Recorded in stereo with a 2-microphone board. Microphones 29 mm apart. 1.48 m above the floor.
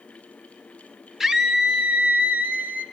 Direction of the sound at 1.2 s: 15° right (ahead or behind).